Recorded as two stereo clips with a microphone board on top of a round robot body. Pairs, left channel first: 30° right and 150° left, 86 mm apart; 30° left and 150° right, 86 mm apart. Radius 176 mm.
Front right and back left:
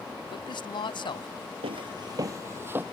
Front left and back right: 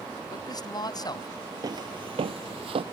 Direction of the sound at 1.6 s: 160° left.